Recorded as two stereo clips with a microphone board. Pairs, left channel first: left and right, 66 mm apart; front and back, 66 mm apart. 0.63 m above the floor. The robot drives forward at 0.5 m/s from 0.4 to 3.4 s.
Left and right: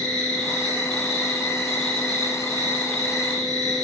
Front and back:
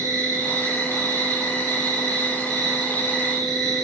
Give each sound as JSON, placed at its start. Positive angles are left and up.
{"t": 0.0, "sound": "an insect", "azimuth_deg": 165, "distance_m": 3.0}